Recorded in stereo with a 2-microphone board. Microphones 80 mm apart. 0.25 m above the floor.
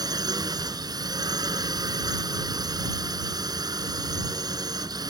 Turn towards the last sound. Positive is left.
turn(degrees=-55)  # may be behind; listen again after turning